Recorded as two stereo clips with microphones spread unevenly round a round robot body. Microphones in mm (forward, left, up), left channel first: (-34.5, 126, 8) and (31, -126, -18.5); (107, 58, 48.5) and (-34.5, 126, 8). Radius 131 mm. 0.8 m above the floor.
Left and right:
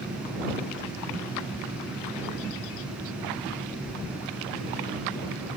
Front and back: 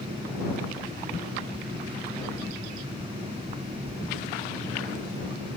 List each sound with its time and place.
Only background noise.